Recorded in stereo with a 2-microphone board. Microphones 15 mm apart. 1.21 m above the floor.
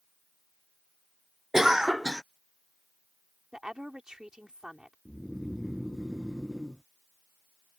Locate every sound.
1.5 s a cough: 35° right (ahead or behind)
3.5 s a woman speaking: 50° right (ahead or behind)
5.0 s snoring: 20° right (ahead or behind)